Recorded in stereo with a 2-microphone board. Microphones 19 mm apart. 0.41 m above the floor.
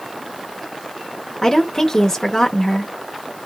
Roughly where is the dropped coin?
No dropped coin in this recording.